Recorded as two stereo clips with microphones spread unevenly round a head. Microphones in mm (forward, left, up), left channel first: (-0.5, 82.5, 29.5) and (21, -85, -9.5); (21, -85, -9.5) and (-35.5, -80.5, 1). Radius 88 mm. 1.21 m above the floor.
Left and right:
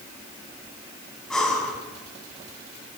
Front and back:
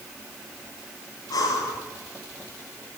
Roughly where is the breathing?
Ahead.